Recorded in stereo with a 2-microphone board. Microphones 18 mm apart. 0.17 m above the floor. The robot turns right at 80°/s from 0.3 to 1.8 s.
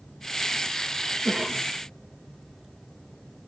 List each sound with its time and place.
1.2 s a cough: 145° right, 3.5 m; by 1.7 s 110° right, 3.5 m